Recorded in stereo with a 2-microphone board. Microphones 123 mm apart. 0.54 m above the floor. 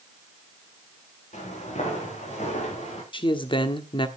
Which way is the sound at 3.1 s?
40° left (ahead or behind).